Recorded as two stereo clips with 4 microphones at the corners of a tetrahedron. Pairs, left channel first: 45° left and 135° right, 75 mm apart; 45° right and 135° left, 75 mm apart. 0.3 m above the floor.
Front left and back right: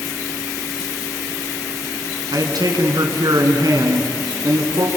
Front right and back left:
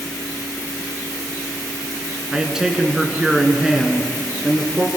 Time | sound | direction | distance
2.3 | a man speaking | 145° right | 3 m